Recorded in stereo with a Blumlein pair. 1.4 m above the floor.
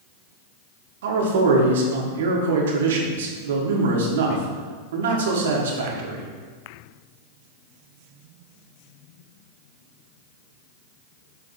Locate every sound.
1.0 s a man speaking: 60° right, 1.3 m